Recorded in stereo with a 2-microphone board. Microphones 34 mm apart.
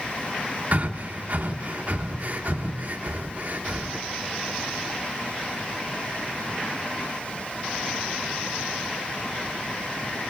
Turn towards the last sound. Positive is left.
turn(degrees=-50)  # may be behind; listen again after turning